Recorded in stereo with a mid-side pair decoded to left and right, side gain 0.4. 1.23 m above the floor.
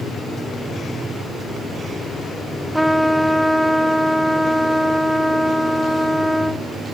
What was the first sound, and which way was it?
A trumpet, 10° right.